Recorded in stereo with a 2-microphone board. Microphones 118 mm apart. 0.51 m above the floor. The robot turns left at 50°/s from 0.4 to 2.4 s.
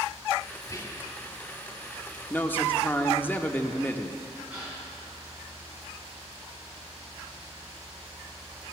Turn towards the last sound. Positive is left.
turn(degrees=-10)  # may be behind; listen again after turning